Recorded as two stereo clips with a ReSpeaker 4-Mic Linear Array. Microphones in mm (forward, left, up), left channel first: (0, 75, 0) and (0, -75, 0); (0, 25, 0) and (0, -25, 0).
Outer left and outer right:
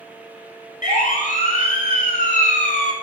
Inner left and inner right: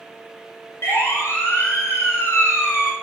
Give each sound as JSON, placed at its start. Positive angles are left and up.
{"t": 0.8, "sound": "a siren", "side_deg": 55, "distance_m": 6.0}